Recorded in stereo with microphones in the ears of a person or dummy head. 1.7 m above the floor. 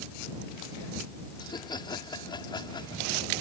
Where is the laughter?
25° left (ahead or behind).